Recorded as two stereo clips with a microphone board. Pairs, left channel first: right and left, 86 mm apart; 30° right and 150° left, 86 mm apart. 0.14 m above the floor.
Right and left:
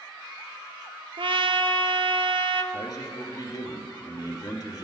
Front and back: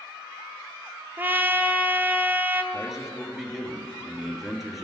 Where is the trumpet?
85° left, 0.6 m.